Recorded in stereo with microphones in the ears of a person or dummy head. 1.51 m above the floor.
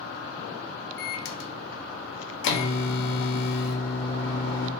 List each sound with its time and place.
1.0 s a microwave: 70° left (ahead or behind), 0.6 m